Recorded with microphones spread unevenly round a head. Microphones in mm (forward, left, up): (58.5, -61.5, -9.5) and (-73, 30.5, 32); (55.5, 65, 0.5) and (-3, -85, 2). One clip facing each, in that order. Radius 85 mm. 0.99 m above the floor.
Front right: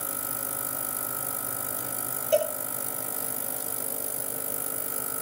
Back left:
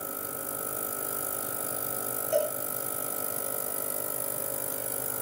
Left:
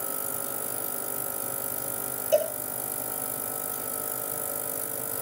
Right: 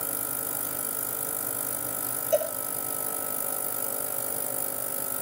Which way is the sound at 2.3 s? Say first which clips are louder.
Front right 3 dB, left 2 dB; 20° left.